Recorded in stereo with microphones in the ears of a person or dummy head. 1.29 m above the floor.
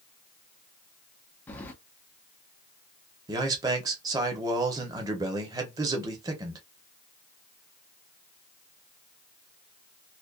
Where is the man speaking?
20° right (ahead or behind), 0.6 m.